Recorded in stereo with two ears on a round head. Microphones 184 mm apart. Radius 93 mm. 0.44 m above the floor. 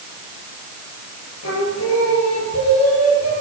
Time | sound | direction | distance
1.4 | singing | 75° left (ahead or behind) | 6.5 m